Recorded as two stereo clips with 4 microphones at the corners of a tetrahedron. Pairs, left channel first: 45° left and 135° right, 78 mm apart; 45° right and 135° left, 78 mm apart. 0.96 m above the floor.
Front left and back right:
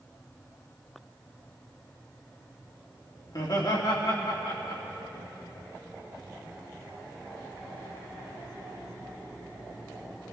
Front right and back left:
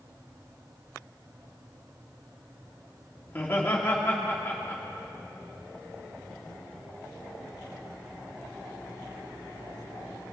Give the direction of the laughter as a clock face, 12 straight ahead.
11 o'clock.